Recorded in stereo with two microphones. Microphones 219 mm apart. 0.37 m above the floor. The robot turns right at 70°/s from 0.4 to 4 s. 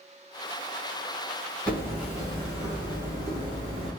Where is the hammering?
165° left, 1.2 m; by 3.9 s 35° right, 1.2 m.